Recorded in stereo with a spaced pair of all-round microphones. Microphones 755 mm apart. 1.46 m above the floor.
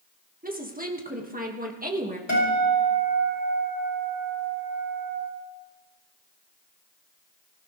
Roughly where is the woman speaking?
Centre.